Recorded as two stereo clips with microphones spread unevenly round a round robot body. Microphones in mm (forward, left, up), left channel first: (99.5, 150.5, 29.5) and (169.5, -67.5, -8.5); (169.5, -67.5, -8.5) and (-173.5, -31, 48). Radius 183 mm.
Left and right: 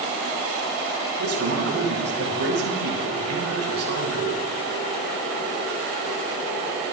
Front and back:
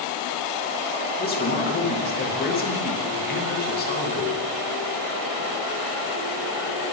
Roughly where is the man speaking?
Right.